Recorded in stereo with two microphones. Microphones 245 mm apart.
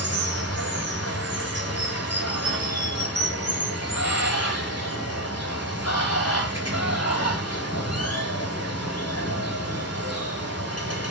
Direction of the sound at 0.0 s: 90° left.